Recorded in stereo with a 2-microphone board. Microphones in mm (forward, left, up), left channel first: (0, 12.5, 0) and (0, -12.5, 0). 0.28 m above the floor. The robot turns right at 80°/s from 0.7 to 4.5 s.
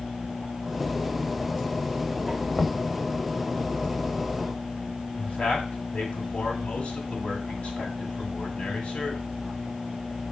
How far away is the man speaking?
About 2 m.